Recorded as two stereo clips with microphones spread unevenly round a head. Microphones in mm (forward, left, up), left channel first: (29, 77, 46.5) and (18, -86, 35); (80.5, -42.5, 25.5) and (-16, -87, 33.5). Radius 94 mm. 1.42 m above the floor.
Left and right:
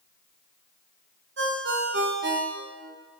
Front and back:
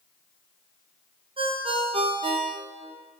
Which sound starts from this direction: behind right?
A ringtone, at 1.4 s.